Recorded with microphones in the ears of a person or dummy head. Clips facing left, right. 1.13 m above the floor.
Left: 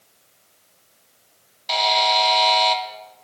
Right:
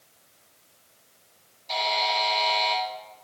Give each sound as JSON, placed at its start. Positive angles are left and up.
{"t": 1.7, "sound": "a buzzer", "side_deg": 85, "distance_m": 0.9}